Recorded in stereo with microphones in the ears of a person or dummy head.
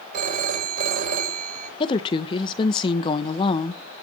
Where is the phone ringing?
45° right (ahead or behind), 4 m.